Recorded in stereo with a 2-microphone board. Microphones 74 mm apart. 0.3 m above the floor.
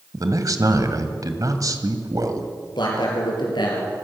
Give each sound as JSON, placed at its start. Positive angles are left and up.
{"t": 0.1, "sound": "a man speaking", "side_deg": -50, "distance_m": 2.0}
{"t": 2.8, "sound": "a man speaking", "side_deg": 75, "distance_m": 5.5}